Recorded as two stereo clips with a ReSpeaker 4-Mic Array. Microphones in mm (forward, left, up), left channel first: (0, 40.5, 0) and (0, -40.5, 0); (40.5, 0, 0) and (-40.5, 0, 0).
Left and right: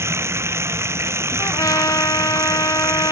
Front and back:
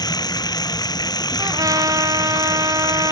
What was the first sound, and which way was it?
Running water, 35° right.